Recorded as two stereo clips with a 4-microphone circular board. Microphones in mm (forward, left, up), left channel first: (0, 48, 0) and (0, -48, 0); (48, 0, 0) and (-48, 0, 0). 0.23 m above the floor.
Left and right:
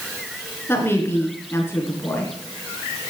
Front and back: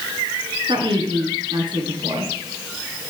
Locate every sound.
0.7 s a woman speaking: 155° left, 3 m